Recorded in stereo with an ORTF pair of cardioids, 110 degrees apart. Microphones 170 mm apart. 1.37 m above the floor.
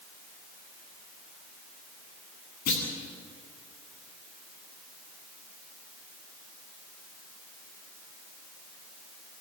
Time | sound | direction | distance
2.7 | a clunk | 65° left | 9 m